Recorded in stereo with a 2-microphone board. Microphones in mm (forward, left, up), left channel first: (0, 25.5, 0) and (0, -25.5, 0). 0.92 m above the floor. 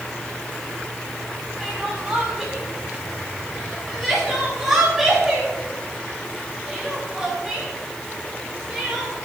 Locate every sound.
1.6 s crying: 5° right (ahead or behind), 6.5 m